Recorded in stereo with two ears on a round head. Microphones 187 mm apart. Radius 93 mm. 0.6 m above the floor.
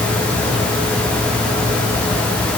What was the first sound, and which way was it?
Only background noise.